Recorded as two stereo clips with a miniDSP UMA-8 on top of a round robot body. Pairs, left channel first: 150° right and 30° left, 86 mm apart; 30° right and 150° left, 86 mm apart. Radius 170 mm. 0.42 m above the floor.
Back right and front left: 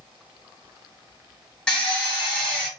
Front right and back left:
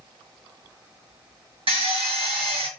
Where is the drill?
130° left, 1.3 m.